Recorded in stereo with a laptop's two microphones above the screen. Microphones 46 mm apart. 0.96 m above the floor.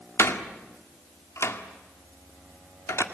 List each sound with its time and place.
0.2 s a door slam: 80° left, 1.8 m